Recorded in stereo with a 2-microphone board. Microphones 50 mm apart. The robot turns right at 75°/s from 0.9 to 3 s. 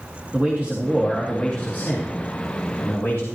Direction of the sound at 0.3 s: 30° right.